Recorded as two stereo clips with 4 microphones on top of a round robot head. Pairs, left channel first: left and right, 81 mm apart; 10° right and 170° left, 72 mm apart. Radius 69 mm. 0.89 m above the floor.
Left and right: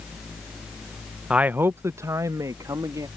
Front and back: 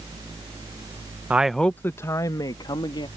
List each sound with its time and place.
1.3 s a man speaking: 150° right; by 3.1 s 35° right